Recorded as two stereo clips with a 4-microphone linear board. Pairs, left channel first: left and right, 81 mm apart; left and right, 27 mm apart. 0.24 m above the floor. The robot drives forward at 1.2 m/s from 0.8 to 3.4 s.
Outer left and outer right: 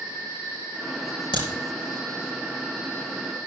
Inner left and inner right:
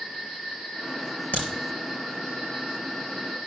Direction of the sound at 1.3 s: 70° left (ahead or behind).